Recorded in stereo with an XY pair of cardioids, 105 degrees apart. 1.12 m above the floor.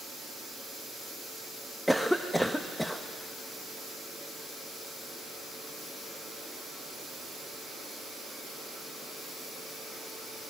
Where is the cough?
5° left, 1.0 m.